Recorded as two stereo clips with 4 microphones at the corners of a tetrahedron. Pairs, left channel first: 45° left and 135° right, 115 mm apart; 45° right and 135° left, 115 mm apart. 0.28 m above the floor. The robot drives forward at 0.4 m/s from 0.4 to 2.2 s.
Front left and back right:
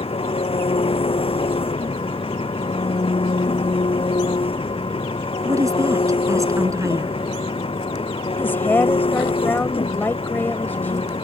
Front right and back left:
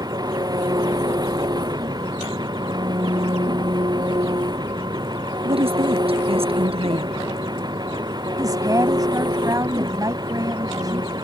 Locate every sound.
0.0 s an engine running: 80° left
5.5 s a woman speaking: 165° left
8.4 s a woman speaking: 110° left